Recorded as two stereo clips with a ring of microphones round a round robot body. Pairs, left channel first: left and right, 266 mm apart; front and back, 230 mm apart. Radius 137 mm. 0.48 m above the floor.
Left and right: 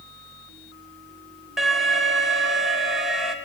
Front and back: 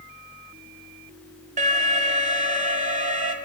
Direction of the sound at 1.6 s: Straight behind.